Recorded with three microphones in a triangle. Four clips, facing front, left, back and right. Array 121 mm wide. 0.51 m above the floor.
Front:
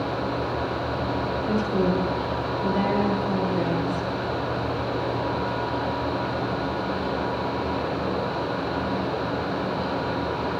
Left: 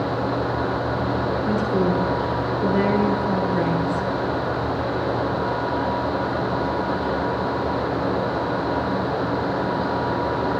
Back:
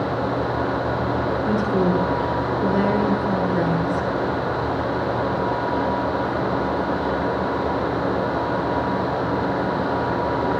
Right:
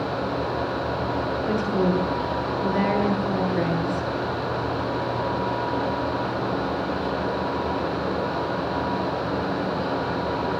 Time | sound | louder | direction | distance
1.5 | a woman speaking | left 1 dB, back 2 dB | 140° left | 9.5 m